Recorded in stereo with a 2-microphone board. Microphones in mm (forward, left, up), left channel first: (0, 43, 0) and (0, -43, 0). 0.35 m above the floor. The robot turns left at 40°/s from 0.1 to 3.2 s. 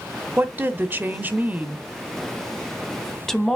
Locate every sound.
0.4 s a woman speaking: 25° right (ahead or behind), 1.1 m; by 3.6 s 5° left (ahead or behind), 1.1 m